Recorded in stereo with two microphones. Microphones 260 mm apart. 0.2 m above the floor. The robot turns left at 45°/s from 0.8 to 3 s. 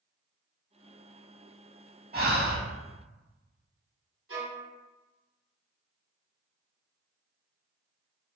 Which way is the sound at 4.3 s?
60° right (ahead or behind).